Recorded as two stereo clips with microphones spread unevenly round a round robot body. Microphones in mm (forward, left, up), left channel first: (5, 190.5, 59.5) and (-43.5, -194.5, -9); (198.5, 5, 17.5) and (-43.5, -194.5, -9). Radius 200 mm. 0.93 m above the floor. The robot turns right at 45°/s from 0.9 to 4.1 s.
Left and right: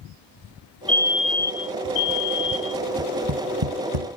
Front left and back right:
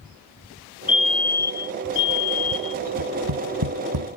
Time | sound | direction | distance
0.9 | a fire alarm | 10° right | ?
3.0 | tapping | 160° right | ?